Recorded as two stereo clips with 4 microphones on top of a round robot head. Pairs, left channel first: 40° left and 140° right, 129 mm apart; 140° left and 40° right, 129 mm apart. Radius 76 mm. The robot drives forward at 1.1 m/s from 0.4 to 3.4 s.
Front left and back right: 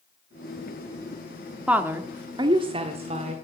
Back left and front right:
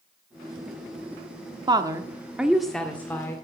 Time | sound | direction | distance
1.7 | a woman speaking | 65° right | 1.5 m